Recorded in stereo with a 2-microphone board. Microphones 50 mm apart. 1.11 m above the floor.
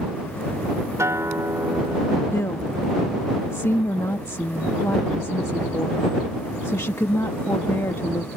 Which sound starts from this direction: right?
A guitar, at 1.0 s.